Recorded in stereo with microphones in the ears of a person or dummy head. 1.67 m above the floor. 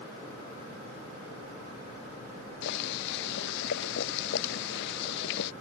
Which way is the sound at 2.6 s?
65° left (ahead or behind).